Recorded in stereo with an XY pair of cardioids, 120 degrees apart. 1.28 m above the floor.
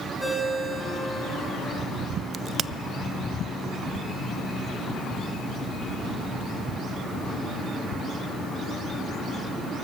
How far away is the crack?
About 0.7 m.